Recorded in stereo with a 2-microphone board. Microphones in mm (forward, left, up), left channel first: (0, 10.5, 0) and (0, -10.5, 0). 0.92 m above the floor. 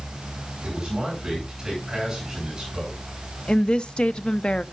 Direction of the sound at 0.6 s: 25° right (ahead or behind).